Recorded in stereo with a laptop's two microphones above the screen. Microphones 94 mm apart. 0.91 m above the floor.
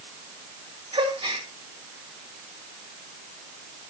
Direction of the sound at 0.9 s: 80° right.